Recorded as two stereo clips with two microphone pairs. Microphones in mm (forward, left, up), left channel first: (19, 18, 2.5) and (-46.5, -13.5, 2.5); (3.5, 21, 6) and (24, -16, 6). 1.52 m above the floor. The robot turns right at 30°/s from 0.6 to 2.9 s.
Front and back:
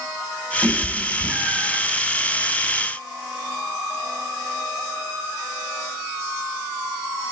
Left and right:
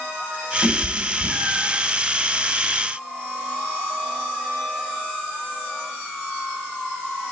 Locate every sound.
0.6 s a cat meowing: 175° right, 1.4 m; by 1.8 s 140° right, 1.4 m